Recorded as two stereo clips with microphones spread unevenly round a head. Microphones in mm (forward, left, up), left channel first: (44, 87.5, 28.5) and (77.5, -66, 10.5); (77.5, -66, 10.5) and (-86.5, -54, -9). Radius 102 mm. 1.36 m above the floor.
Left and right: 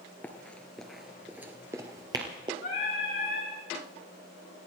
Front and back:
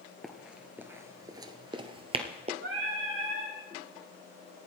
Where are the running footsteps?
65° left, 1.4 m; by 2.5 s 140° right, 1.7 m.